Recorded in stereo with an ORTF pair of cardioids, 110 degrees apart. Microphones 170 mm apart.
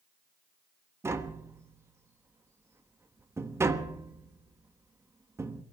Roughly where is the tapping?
Ahead.